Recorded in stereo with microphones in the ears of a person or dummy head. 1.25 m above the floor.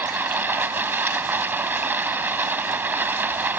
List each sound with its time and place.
0.0 s running water: 15° right (ahead or behind)